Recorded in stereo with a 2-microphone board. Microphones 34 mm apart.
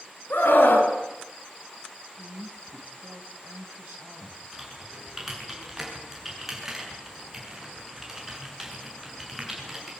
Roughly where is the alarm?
I don't hear an alarm.